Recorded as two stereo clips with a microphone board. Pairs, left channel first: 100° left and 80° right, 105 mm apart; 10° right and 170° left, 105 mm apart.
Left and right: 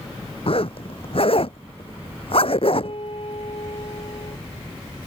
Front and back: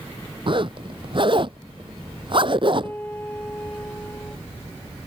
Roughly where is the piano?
Ahead left.